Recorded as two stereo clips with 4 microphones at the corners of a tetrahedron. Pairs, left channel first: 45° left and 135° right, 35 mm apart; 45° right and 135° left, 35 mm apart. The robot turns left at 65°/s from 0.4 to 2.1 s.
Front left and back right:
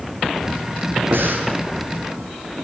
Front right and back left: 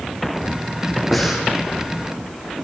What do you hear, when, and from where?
1.1 s breathing: 130° right, 4 m; by 1.5 s 155° right, 4 m